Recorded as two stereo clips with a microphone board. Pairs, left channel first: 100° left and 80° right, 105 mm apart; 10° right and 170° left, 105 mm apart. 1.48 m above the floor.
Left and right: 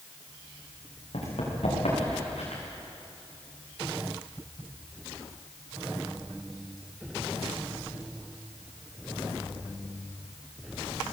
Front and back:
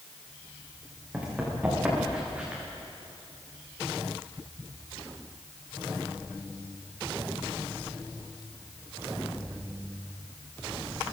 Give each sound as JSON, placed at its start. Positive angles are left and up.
{"t": 1.1, "sound": "running footsteps", "azimuth_deg": 90, "distance_m": 8.0}